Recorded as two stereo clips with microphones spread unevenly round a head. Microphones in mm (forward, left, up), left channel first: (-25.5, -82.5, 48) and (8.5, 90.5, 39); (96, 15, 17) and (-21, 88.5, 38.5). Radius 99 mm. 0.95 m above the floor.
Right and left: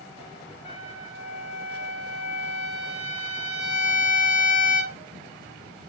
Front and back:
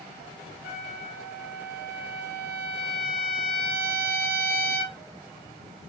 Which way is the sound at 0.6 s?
40° right.